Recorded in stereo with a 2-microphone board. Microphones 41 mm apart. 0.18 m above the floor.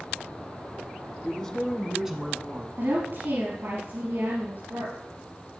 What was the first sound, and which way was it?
A man speaking, 20° left (ahead or behind).